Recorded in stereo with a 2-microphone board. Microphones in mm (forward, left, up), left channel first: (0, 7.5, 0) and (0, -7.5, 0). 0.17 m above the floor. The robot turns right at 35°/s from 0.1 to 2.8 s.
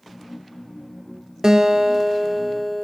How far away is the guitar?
About 1.4 m.